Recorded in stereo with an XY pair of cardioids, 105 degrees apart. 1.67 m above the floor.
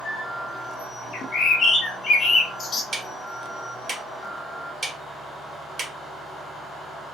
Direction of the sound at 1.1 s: 55° left.